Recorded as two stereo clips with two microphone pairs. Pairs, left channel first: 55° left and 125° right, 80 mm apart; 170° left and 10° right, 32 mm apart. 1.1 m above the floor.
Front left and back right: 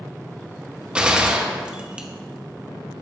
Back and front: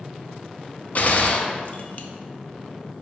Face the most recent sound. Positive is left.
turn(degrees=160)